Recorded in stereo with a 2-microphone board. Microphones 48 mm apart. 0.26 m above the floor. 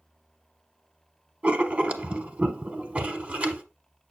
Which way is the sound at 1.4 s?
30° right (ahead or behind).